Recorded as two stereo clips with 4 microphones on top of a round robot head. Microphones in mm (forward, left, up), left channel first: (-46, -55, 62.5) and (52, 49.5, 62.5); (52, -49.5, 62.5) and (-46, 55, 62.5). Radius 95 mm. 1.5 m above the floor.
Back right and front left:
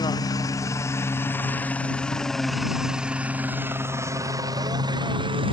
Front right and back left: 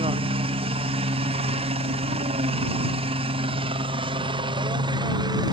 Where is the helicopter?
170° left; by 5.5 s 85° left.